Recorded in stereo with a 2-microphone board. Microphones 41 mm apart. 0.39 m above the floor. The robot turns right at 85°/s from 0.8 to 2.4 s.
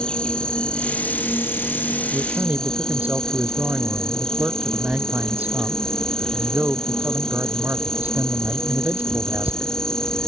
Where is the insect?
25° left; by 10.3 s 160° left.